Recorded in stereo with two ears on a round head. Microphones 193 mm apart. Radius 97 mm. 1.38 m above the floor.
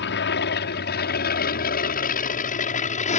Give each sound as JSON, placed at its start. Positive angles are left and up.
{"t": 0.0, "sound": "an aircraft", "side_deg": 55}